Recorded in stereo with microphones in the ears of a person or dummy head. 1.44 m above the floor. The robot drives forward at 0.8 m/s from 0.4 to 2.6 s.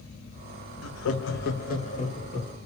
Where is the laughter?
75° left (ahead or behind), 0.7 m; by 2.6 s 25° left (ahead or behind), 1.6 m.